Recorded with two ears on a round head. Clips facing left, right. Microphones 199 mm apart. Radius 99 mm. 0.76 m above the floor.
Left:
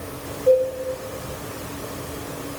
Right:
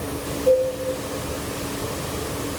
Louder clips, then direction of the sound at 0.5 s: Left 1 dB; centre (ahead or behind).